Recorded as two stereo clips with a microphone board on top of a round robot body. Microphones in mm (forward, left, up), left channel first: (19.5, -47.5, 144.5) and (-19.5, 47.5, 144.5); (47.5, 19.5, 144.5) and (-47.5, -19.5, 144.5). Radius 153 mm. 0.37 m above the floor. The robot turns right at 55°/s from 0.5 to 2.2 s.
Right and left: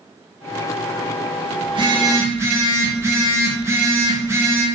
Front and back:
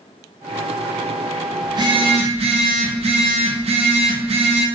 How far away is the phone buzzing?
About 0.7 m.